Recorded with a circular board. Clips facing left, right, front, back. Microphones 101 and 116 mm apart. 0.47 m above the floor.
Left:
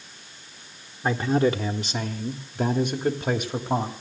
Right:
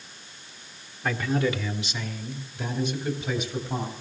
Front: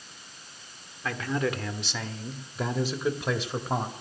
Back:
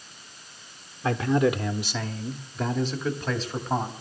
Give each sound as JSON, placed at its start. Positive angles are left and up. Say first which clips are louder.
{"t": 1.0, "sound": "a man speaking", "louder": "left 4 dB, back 7 dB", "azimuth_deg": 135, "distance_m": 0.9}